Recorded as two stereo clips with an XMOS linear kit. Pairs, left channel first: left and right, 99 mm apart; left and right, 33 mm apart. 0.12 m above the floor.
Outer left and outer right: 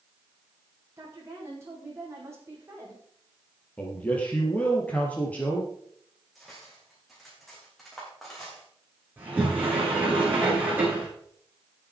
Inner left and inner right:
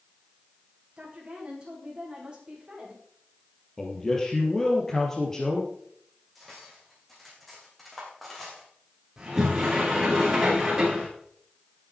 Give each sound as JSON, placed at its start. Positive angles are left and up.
{"t": 1.0, "sound": "a woman speaking", "side_deg": -30, "distance_m": 7.0}
{"t": 3.8, "sound": "a man speaking", "side_deg": 15, "distance_m": 3.0}
{"t": 6.3, "sound": "cutlery clinking", "side_deg": 0, "distance_m": 5.0}
{"t": 9.2, "sound": "a sliding door", "side_deg": -15, "distance_m": 7.5}